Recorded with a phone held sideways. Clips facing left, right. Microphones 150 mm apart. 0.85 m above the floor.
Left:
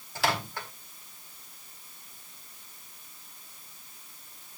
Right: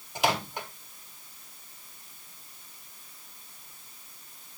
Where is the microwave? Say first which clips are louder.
Right 2 dB; 20° right (ahead or behind), 1.7 m.